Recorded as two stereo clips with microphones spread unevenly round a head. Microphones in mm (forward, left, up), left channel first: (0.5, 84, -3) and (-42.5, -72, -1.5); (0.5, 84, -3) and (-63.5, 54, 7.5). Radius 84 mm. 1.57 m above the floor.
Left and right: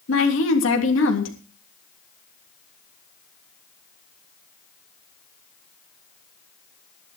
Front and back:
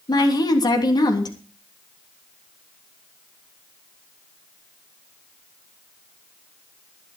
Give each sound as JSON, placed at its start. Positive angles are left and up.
{"t": 0.1, "sound": "a woman speaking", "azimuth_deg": 50, "distance_m": 3.0}